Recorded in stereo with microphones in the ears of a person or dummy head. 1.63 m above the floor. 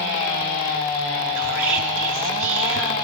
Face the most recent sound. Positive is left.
turn(degrees=-65)  # may be behind; listen again after turning